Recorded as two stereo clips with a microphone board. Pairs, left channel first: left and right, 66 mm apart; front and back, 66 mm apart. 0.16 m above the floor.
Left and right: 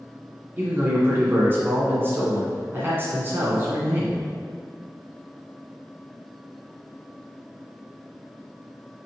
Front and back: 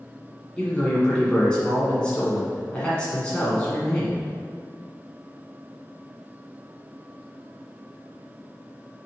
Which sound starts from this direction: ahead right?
A man speaking, at 0.6 s.